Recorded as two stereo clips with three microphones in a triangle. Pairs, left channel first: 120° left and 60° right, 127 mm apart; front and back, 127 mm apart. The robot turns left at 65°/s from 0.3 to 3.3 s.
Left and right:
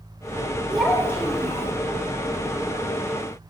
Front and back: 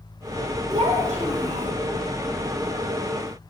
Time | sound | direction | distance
0.7 | a child speaking | 145° right | 2 m